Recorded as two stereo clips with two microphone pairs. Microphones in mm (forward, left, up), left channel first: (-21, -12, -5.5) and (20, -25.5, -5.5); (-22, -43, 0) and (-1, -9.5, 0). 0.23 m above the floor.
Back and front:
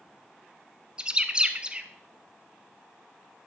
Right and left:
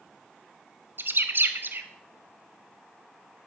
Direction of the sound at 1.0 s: 45° left.